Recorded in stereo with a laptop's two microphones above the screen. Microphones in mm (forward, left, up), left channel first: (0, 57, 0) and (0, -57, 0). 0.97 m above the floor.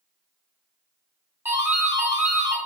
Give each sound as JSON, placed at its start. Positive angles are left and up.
{"t": 1.4, "sound": "a doorbell", "side_deg": -15, "distance_m": 0.7}